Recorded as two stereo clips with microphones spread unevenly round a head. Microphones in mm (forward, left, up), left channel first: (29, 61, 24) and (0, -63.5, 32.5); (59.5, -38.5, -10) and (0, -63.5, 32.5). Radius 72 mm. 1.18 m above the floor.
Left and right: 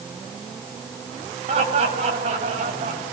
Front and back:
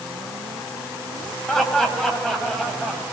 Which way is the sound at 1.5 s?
60° right.